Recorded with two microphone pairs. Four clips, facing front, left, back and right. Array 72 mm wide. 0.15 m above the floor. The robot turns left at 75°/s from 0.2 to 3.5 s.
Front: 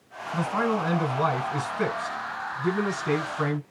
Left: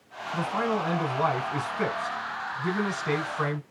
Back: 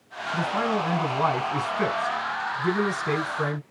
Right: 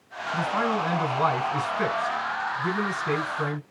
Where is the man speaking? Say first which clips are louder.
Right 2 dB, even; 70° right, 1.2 m; by 3.6 s 50° left, 1.2 m.